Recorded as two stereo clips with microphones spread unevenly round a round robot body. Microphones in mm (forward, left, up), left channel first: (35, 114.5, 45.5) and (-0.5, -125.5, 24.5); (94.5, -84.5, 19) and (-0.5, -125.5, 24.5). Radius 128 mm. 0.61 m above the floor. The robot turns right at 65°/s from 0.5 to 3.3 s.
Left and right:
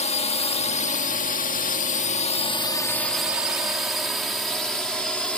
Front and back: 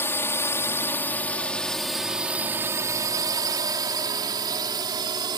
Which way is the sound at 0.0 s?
50° left.